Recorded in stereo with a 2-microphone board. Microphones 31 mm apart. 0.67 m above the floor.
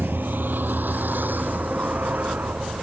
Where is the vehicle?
80° right; by 2.8 s 65° right (ahead or behind).